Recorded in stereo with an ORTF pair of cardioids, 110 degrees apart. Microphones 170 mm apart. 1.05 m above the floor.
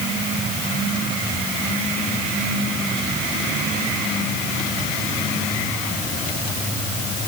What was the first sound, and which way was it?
Only background noise.